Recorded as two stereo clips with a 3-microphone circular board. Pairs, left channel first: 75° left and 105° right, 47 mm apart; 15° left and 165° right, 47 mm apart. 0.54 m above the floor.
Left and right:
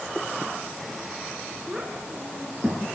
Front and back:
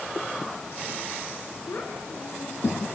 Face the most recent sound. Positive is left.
turn(degrees=-25)